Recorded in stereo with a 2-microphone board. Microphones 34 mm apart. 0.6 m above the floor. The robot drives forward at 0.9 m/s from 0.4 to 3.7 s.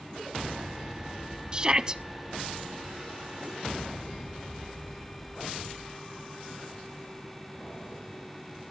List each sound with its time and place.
1.5 s a shout: 25° right (ahead or behind), 0.6 m; by 2.0 s 20° right (ahead or behind), 0.7 m